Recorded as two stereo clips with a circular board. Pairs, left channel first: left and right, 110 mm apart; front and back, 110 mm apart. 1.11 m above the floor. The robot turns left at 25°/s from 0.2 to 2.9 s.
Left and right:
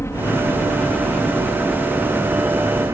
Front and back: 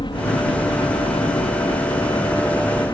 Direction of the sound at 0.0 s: 30° left.